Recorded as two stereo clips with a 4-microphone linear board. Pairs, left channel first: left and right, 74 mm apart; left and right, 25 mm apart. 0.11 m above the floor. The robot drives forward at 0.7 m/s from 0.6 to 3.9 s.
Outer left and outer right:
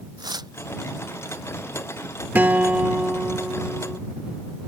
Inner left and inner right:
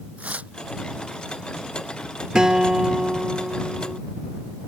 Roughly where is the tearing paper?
Right.